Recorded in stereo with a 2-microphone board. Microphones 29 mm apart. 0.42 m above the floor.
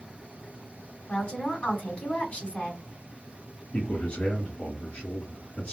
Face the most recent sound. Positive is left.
turn(degrees=55)  # may be behind; listen again after turning